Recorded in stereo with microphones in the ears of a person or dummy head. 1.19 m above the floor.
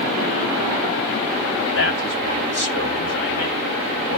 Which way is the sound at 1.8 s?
85° left.